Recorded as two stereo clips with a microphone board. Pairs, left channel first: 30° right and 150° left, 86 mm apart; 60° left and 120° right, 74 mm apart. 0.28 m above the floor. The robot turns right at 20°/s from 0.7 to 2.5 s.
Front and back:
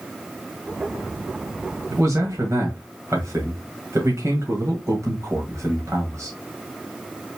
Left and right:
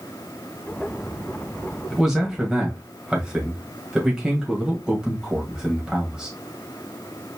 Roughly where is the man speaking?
Behind left.